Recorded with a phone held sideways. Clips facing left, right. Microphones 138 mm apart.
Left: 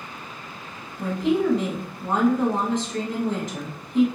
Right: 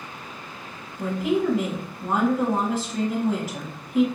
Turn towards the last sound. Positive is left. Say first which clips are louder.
# left 1 dB
turn(degrees=-5)  # may be behind; listen again after turning